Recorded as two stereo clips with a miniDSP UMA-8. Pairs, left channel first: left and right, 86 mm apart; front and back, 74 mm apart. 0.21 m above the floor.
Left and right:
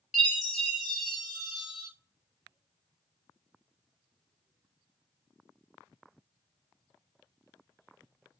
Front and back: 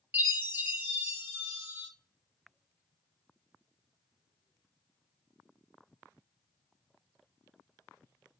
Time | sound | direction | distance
0.1 | a chime | 165° right | 1.2 m